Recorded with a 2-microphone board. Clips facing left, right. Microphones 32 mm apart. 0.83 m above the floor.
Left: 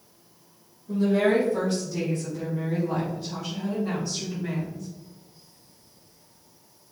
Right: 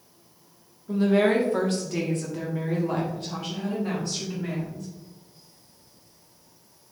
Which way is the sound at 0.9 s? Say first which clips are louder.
Right 1 dB; 35° right (ahead or behind).